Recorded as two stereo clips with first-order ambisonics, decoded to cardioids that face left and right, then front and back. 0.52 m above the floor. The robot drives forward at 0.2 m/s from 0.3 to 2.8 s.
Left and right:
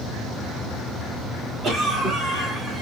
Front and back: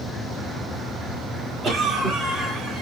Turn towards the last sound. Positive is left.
turn(degrees=-140)